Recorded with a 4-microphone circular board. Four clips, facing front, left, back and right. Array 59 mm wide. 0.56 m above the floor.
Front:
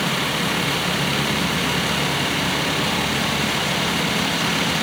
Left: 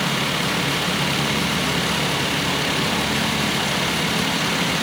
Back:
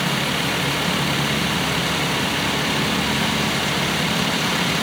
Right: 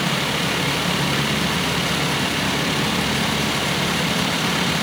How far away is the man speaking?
I don't hear a man speaking.